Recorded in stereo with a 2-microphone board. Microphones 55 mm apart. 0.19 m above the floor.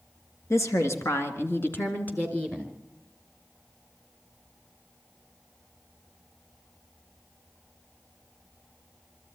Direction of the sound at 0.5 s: 60° left (ahead or behind).